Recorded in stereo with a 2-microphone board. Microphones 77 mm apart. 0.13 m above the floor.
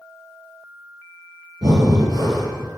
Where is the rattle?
I don't hear a rattle.